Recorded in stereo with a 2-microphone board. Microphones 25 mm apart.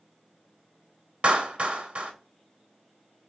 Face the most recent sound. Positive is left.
turn(degrees=-50)  # may be behind; listen again after turning